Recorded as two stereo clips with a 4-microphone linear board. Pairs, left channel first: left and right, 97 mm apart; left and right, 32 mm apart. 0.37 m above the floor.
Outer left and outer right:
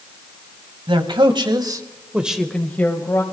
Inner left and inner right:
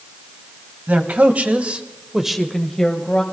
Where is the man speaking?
60° right (ahead or behind), 2 m; by 3.2 s 25° left (ahead or behind), 2.5 m.